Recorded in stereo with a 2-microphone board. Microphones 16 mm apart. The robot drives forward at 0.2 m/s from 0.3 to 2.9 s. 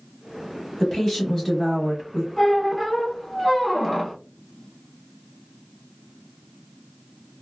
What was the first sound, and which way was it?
A woman speaking, 20° left (ahead or behind).